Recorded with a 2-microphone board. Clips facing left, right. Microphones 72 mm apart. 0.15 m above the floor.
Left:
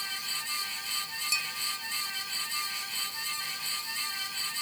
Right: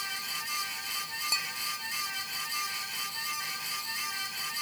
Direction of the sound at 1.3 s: 45° right (ahead or behind).